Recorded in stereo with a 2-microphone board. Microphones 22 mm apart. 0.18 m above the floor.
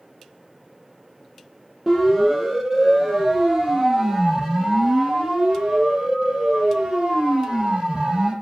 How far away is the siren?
About 6.5 m.